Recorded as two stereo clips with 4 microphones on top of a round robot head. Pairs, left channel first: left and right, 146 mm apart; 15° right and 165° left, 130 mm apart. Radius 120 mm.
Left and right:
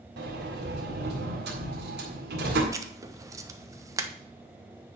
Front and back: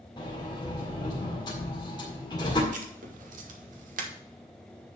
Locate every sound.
0.2 s a sliding door: 80° right, 1.8 m
2.7 s writing: 160° right, 1.0 m